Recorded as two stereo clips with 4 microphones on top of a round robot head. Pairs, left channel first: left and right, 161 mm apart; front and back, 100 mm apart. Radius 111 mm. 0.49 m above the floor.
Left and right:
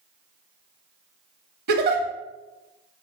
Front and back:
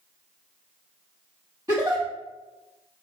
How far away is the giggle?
About 0.6 m.